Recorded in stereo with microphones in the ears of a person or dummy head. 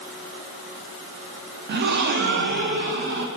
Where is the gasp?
60° right (ahead or behind), 1.0 m.